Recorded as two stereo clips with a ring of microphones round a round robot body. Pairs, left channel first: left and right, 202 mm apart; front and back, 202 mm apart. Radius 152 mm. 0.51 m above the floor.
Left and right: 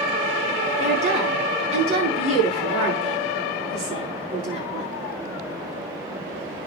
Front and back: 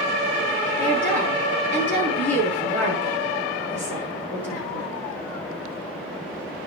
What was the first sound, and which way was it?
A woman speaking, 85° right.